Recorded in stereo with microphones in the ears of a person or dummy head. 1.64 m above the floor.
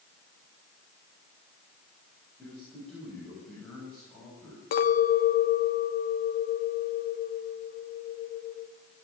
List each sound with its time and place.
2.4 s a man speaking: centre (ahead or behind), 9.5 m
4.7 s a clink: 45° left (ahead or behind), 1.3 m